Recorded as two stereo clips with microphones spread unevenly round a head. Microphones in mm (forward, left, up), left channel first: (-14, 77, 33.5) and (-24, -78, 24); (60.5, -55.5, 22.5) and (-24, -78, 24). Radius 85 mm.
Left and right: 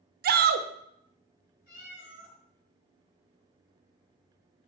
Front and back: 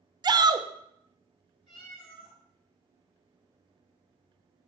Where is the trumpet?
No trumpet in this recording.